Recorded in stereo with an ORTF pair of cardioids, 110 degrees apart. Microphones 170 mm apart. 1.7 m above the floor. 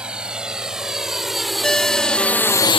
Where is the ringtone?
5° left.